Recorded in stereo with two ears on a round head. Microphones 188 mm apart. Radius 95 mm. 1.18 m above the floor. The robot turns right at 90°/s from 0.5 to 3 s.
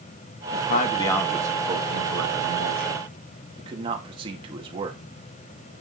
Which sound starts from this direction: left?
A man speaking, at 0.5 s.